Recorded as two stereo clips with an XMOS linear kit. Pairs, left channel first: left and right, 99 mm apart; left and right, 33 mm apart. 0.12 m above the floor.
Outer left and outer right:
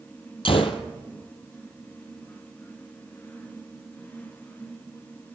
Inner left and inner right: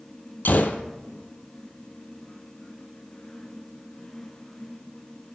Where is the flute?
No flute in this recording.